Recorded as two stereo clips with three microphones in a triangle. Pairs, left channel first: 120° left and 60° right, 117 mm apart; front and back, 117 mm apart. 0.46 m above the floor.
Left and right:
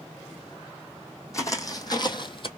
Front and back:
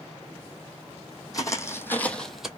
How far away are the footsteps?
About 1.1 m.